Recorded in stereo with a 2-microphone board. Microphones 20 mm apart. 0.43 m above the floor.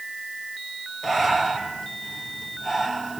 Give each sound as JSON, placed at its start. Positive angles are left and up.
{"t": 1.0, "sound": "breathing", "side_deg": 5, "distance_m": 3.5}